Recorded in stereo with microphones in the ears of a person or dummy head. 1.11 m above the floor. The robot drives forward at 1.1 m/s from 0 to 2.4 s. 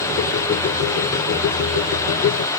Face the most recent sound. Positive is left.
No sound to turn to.